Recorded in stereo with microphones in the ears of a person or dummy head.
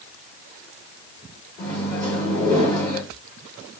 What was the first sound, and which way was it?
A microwave, 20° left (ahead or behind).